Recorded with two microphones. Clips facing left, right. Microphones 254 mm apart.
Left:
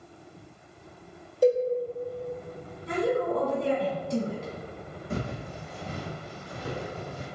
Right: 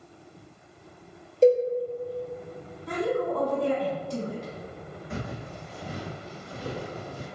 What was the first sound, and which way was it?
A cowbell, 25° right (ahead or behind).